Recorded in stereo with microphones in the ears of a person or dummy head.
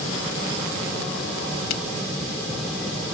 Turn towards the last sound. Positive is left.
turn(degrees=85)